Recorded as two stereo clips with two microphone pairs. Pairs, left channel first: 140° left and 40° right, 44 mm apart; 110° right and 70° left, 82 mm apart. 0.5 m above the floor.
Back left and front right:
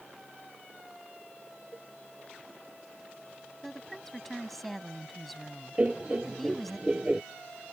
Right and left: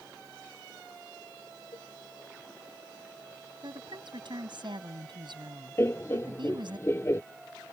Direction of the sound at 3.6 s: 55° left.